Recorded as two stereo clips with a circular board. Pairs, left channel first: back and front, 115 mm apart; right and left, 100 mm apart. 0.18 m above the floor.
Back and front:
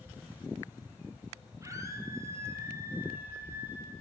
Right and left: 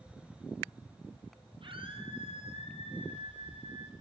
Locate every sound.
1.6 s a scream: 65° left, 6 m; by 3.9 s 70° left, 7.5 m